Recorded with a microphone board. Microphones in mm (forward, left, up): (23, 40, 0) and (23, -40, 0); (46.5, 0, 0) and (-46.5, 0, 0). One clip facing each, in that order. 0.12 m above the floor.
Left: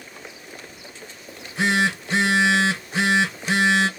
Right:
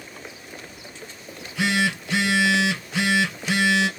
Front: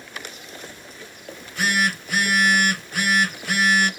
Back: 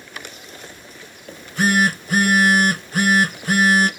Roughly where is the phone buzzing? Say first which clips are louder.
Left 2 dB, back 5 dB; behind left.